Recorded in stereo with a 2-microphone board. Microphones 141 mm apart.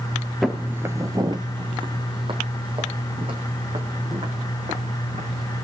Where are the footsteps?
Centre (ahead or behind), 1.1 m; by 5.6 s 40° right (ahead or behind), 6.5 m.